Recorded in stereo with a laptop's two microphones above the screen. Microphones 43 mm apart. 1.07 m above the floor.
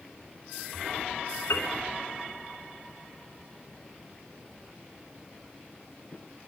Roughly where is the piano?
Left.